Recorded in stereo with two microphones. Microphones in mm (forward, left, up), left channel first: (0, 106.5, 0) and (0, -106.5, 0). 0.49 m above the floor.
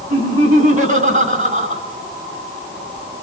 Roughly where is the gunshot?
I don't hear a gunshot.